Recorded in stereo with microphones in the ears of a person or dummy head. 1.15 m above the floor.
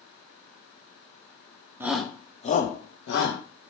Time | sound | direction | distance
1.8 | a shout | 15° right (ahead or behind) | 0.6 m